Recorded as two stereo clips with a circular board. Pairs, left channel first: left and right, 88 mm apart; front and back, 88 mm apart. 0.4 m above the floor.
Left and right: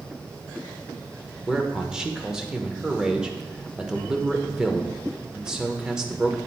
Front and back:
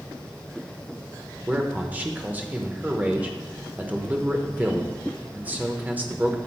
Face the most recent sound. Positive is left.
turn(degrees=-160)